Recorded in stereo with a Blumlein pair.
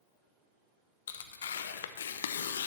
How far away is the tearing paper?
About 0.7 m.